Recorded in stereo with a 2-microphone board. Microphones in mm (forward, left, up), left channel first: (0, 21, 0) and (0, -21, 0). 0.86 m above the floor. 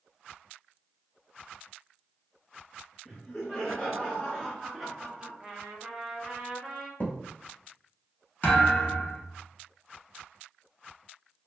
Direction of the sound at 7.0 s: 45° left (ahead or behind).